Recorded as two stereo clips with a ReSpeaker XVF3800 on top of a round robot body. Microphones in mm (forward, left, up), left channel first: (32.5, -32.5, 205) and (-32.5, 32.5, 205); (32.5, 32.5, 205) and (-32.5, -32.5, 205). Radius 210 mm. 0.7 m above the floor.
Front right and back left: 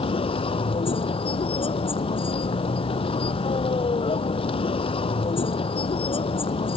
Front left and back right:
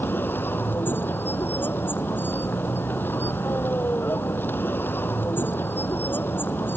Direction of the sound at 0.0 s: 25° right.